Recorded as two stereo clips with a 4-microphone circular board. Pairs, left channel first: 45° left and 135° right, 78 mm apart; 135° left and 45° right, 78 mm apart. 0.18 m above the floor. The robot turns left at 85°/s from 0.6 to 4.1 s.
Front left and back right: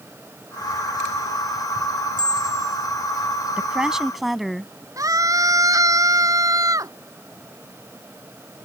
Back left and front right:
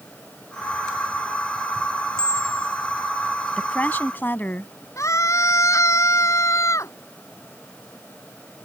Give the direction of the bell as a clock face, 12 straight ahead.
5 o'clock.